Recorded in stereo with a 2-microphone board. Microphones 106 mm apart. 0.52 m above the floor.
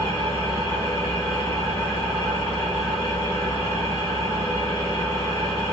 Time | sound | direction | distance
0.0 | an engine running | 60° left (ahead or behind) | 1.5 m